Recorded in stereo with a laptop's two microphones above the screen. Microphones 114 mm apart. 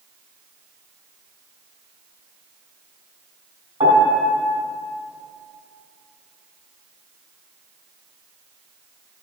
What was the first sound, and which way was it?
A piano, 55° right (ahead or behind).